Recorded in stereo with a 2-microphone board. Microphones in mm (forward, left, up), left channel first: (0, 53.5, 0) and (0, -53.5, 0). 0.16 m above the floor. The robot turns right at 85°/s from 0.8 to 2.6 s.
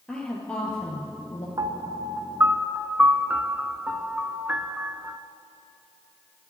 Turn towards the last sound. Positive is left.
turn(degrees=-20)